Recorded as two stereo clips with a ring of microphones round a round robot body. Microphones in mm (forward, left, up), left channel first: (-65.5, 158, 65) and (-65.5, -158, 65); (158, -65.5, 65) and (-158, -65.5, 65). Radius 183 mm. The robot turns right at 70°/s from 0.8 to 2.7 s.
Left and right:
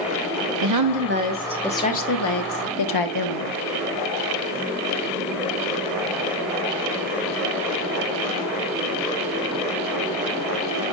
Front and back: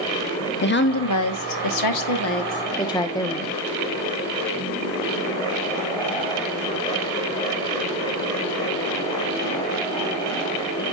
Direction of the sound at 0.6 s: 55° right.